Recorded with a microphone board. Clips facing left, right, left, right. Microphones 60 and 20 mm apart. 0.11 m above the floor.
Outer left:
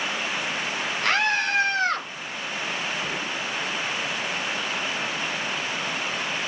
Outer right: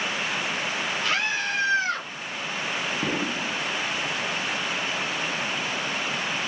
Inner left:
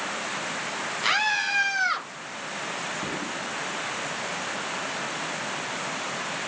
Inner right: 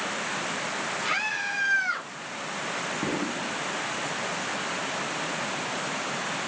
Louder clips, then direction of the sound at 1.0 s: Outer left 6 dB, inner left 6 dB; 60° left (ahead or behind).